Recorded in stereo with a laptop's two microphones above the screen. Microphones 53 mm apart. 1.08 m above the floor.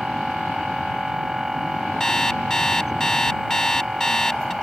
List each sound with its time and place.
0.0 s a machine running: 5° right (ahead or behind)
2.0 s an alarm clock: 10° left (ahead or behind)